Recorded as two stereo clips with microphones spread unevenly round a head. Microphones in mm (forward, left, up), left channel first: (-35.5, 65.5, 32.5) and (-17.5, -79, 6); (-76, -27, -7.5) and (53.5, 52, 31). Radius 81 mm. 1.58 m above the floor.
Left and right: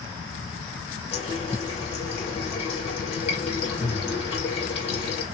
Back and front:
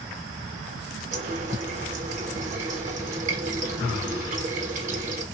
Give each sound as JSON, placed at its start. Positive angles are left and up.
{"t": 1.1, "sound": "a running tap", "azimuth_deg": 50, "distance_m": 1.3}